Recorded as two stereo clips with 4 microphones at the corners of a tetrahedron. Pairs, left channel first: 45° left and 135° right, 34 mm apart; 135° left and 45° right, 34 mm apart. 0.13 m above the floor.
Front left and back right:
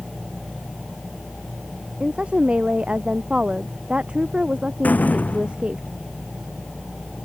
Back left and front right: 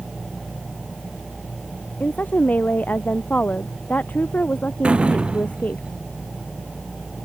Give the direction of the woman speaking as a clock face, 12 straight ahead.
6 o'clock.